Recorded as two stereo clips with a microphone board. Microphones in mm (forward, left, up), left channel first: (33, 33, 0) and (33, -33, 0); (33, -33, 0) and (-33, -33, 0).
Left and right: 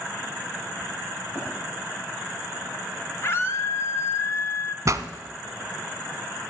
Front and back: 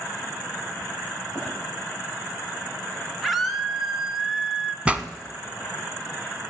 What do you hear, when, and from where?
1.4 s running footsteps: 145° left, 7 m
3.2 s a scream: 90° left, 1.3 m
4.8 s a pop: 110° right, 0.7 m